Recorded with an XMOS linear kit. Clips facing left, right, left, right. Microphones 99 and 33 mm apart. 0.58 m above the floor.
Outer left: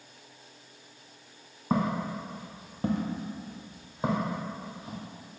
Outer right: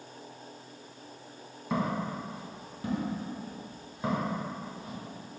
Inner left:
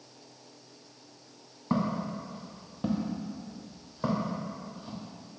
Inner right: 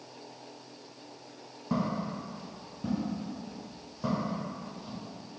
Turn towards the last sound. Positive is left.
turn(degrees=15)  # may be behind; listen again after turning